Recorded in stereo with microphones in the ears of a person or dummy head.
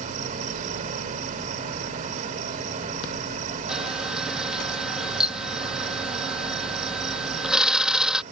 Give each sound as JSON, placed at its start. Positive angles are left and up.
{"t": 0.0, "sound": "an insect", "side_deg": -40}
{"t": 3.7, "sound": "a camera shutter", "side_deg": -5}